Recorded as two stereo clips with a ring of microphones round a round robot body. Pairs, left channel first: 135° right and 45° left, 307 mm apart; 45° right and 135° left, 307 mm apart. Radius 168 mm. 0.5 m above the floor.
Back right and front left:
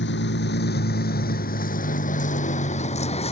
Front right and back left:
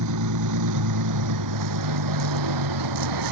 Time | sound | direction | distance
0.0 | a vehicle | 170° left | ?